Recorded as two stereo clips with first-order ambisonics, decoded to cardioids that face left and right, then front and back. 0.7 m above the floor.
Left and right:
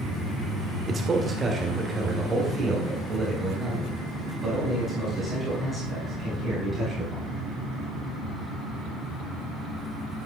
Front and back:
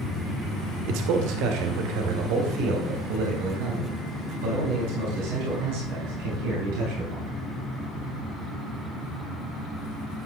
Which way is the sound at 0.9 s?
160° right.